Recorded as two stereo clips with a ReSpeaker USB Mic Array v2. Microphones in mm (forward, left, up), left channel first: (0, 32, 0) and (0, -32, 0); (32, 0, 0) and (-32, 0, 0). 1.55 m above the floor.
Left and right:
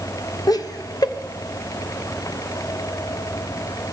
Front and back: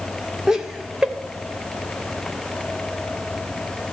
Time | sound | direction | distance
0.5 | laughter | 100° left | 0.8 m